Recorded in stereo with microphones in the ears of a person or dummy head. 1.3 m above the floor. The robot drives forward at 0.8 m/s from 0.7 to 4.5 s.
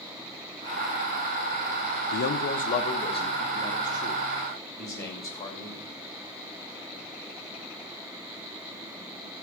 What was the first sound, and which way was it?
A man speaking, 55° left (ahead or behind).